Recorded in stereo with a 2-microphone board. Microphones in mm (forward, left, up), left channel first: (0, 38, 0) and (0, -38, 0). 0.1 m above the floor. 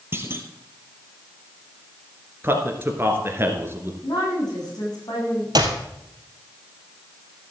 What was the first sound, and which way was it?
A clunk, 30° right (ahead or behind).